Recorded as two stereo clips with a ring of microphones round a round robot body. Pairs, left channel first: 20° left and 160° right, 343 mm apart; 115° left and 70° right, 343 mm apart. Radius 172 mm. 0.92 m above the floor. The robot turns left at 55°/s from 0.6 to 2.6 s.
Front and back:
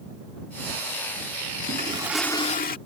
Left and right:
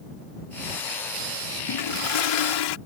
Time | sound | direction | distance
1.7 | a toilet flushing | 140° left | ?